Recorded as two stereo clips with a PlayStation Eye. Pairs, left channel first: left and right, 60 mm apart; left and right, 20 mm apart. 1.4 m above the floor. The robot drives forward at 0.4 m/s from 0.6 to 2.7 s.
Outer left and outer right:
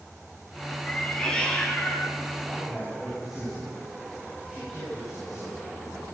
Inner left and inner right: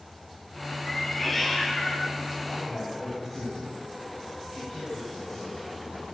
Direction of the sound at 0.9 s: 15° left (ahead or behind).